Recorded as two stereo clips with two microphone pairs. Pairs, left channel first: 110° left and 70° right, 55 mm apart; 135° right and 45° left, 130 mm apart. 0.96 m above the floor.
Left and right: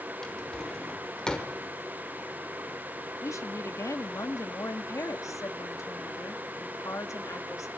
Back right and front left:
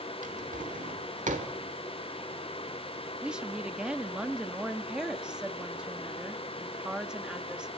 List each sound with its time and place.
0.2 s a drawer: 35° left, 1.7 m
3.2 s a woman speaking: 130° left, 1.3 m